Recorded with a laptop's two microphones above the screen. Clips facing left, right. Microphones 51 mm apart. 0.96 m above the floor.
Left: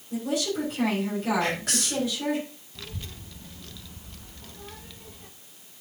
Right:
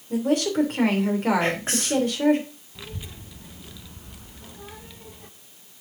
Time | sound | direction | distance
0.1 | a woman speaking | 55° right (ahead or behind) | 3 m
1.4 | whispering | 30° right (ahead or behind) | 2.5 m
2.8 | a child speaking | 10° right (ahead or behind) | 0.7 m